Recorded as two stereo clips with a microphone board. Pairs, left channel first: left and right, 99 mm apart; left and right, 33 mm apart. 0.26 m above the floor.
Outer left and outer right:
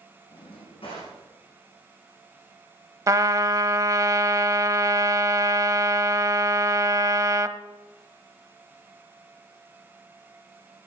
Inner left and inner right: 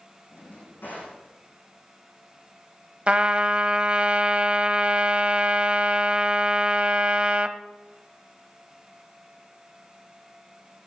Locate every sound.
0.3 s a drawer: 70° left (ahead or behind), 9.5 m
3.1 s a trumpet: 35° right (ahead or behind), 0.6 m